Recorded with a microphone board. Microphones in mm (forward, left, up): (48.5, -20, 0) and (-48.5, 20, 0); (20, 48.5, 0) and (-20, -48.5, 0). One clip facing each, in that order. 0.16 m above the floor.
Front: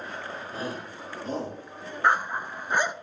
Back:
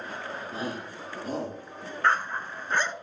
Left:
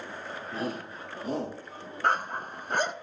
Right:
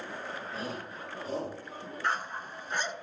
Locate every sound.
0.5 s a shout: 90° left, 5.5 m; by 1.6 s 75° left, 5.5 m
2.0 s a dog barking: 50° left, 0.5 m